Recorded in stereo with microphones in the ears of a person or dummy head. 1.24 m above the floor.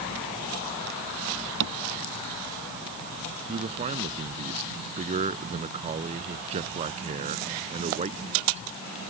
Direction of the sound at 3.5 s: 35° right (ahead or behind).